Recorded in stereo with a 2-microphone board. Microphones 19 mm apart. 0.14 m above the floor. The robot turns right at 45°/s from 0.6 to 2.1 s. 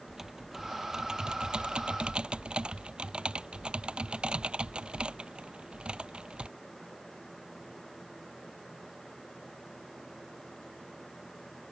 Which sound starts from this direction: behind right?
Typing on a keyboard, at 0.1 s.